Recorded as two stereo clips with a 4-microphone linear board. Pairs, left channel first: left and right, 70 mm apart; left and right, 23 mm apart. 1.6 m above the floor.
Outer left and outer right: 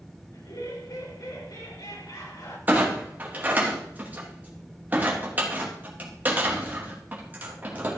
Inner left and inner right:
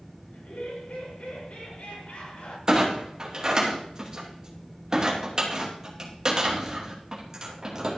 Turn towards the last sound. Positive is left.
turn(degrees=-25)  # may be behind; listen again after turning